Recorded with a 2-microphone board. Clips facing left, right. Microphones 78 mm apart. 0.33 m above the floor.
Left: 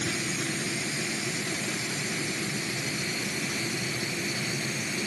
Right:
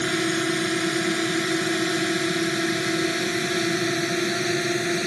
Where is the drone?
70° right (ahead or behind).